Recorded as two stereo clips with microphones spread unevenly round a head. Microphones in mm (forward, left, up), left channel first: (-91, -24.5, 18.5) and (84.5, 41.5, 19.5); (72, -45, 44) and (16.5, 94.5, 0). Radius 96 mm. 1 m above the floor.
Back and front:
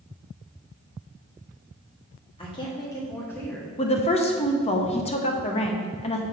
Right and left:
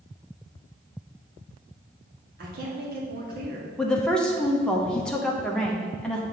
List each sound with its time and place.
2.4 s a woman speaking: 140° left, 1.8 m; by 3.7 s 115° left, 1.5 m
3.8 s a woman speaking: 175° right, 0.8 m